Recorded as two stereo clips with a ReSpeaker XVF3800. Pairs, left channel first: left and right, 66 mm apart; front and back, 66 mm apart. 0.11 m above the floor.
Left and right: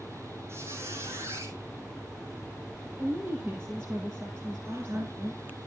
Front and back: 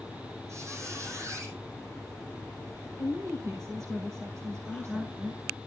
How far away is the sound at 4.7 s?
About 2.0 m.